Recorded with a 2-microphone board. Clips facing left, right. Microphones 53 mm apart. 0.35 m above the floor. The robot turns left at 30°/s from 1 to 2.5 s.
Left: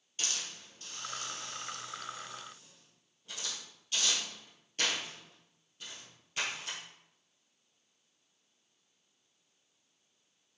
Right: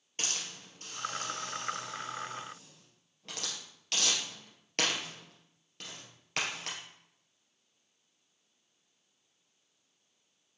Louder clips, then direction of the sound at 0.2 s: Right 1 dB; 40° right (ahead or behind).